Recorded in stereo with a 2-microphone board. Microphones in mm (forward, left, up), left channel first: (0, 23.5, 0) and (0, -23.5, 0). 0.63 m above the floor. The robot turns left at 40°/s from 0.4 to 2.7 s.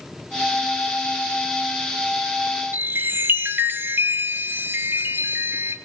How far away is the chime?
About 1.0 m.